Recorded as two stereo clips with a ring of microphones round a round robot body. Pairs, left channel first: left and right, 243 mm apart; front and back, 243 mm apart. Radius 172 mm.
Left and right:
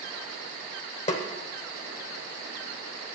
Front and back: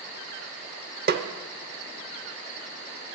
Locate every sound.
1.1 s a snare drum: 150° left, 0.9 m